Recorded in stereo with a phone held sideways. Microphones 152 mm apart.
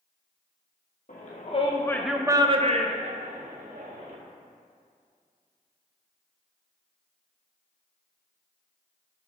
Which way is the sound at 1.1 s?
60° left (ahead or behind).